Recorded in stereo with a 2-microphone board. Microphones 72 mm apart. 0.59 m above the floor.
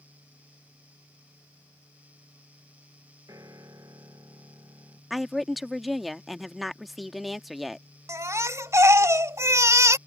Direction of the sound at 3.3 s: 55° right (ahead or behind).